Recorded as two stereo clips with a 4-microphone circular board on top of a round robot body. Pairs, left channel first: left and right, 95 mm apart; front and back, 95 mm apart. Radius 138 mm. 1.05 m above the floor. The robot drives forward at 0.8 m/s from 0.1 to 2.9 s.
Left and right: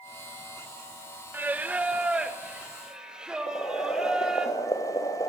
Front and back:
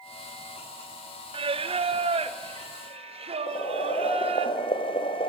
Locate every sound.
1.3 s singing: 160° right, 1.0 m; by 4.5 s 170° right, 2 m
3.5 s boiling: 35° left, 1.1 m